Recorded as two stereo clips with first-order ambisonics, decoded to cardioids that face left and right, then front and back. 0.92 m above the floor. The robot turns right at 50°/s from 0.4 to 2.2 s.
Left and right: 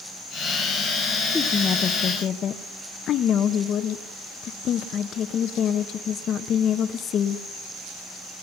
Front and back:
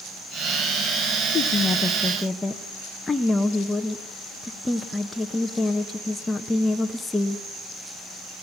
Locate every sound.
1.3 s a woman speaking: 30° left, 0.9 m; by 7.4 s 75° left, 0.9 m